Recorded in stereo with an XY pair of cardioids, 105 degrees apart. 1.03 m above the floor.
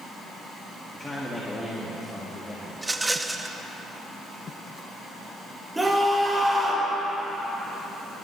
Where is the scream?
10° right, 5 m.